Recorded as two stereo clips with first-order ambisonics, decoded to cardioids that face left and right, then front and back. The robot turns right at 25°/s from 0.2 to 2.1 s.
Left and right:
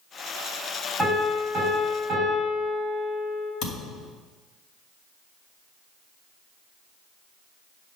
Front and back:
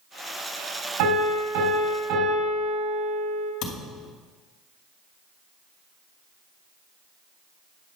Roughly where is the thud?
Ahead left.